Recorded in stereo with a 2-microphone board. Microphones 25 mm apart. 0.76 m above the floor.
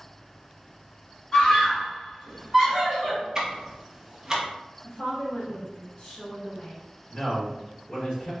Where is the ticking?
20° right (ahead or behind), 0.6 m.